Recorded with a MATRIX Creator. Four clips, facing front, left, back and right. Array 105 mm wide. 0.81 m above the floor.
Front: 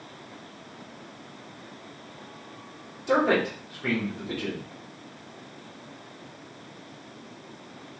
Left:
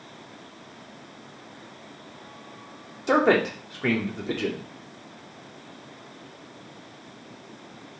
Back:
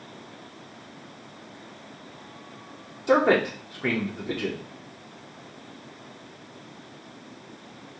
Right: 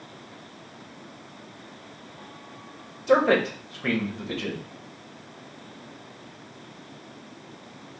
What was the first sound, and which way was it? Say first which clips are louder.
A man speaking: even, back 3 dB; 120° left.